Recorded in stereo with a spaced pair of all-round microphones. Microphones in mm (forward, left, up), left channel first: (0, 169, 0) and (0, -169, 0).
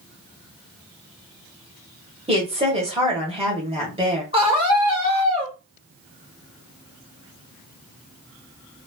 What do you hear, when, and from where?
2.3 s a woman speaking: 15° right (ahead or behind), 1.3 m
4.3 s a scream: 15° right (ahead or behind), 1.5 m